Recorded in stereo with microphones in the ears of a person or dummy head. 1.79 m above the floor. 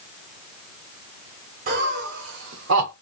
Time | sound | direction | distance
1.7 | laughter | 40° right (ahead or behind) | 0.8 m